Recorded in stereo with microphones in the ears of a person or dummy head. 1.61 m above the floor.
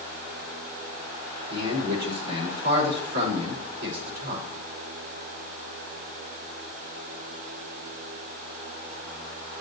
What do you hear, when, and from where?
1.5 s a man speaking: 70° right (ahead or behind), 4.5 m